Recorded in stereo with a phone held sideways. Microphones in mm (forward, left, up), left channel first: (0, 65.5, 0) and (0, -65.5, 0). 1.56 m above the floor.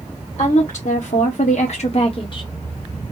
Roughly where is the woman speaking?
Left.